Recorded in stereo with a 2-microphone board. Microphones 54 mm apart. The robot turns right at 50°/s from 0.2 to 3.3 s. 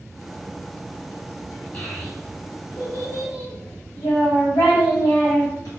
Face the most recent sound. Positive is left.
turn(degrees=75)  # may be behind; listen again after turning